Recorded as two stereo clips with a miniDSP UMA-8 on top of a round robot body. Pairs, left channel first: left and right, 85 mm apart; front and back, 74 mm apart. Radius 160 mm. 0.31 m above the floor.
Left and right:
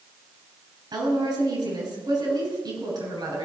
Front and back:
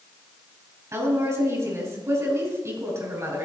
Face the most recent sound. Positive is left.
turn(degrees=-125)